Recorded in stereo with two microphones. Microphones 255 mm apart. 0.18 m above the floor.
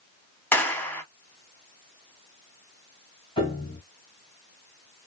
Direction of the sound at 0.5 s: 10° left (ahead or behind).